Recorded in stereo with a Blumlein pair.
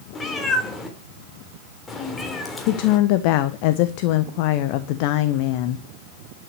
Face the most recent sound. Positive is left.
turn(degrees=45)